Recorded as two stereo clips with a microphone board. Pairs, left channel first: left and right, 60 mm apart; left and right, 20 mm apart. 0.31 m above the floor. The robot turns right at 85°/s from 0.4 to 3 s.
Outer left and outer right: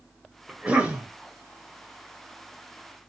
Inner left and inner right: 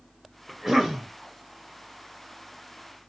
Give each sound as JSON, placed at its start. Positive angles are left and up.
{"t": 0.5, "sound": "a cough", "side_deg": -15, "distance_m": 0.9}